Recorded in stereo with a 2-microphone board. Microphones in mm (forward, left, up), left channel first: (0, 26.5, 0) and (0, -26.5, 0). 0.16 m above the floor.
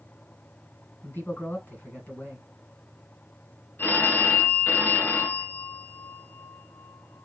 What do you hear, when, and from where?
1.0 s a man speaking: 40° left (ahead or behind), 1.6 m
3.8 s a phone ringing: 45° left (ahead or behind), 1.0 m